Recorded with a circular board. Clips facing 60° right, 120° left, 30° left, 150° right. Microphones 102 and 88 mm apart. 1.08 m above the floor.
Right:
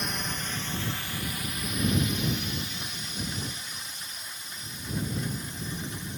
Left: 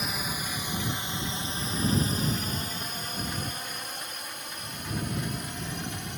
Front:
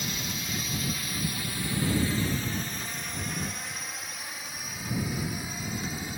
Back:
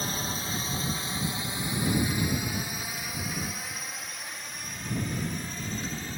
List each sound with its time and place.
0.0 s a drone: 155° right; by 6.2 s 110° left